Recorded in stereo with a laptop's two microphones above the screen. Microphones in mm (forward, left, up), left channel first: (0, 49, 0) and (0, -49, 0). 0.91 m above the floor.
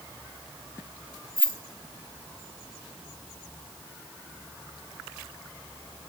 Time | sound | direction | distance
1.4 | keys jangling | 55° left (ahead or behind) | 0.8 m